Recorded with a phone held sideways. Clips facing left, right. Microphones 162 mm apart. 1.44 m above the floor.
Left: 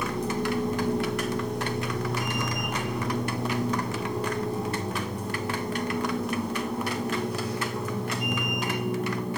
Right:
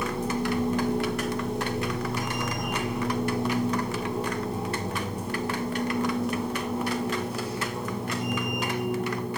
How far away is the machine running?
About 1.6 m.